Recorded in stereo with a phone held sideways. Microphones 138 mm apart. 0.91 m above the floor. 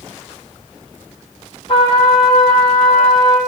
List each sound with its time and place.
1.7 s a trumpet: 40° left (ahead or behind), 7 m